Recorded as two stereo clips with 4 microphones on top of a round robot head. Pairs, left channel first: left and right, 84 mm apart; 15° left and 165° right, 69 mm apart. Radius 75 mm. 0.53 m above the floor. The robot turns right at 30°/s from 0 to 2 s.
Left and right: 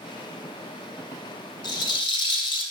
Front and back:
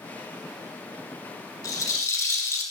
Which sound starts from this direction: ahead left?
A rattle, at 1.6 s.